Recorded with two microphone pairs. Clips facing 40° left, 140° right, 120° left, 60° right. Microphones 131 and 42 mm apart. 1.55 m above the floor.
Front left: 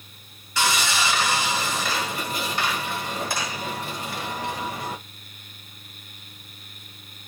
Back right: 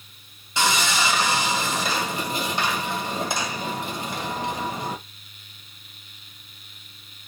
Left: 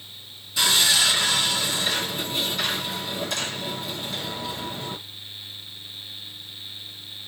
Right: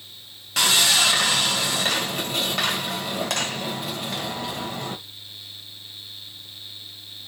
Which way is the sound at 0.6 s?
70° right.